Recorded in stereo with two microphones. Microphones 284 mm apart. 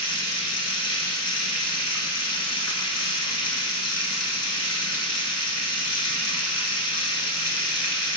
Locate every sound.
0.0 s running water: 65° left (ahead or behind), 0.9 m